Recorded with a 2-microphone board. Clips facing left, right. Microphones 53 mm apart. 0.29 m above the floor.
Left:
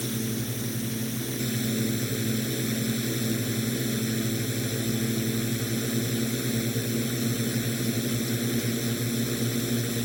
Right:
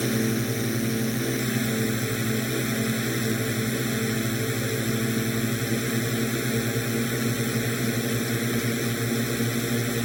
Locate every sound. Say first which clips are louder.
0.0 s a drone: right 6 dB; 70° right (ahead or behind)